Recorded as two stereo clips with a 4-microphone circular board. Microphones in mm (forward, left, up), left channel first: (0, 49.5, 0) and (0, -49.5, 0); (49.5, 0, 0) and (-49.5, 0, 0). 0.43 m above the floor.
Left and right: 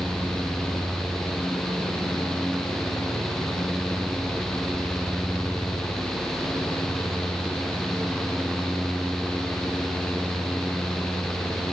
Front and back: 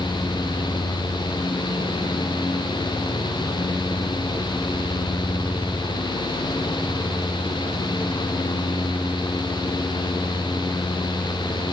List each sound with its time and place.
Only background noise.